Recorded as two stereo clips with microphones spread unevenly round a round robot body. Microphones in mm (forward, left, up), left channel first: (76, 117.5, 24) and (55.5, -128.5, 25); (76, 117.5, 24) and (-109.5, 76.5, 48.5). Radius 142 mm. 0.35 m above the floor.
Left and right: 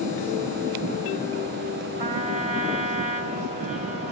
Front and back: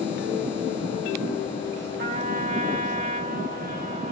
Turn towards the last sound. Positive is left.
turn(degrees=-145)